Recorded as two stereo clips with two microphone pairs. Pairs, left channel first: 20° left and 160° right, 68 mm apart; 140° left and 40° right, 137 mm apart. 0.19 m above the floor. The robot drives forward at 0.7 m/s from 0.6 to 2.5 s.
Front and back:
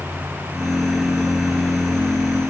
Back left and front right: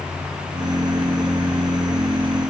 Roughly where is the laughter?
No laughter in this recording.